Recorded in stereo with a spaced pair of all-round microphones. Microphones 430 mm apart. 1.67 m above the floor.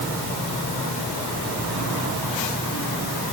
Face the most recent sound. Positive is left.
No sound to turn to.